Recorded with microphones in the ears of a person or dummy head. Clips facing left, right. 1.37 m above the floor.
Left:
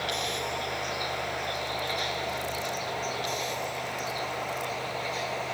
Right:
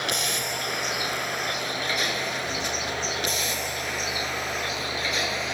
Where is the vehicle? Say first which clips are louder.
Right 1 dB; 60° right (ahead or behind); by 5.5 s 70° right (ahead or behind).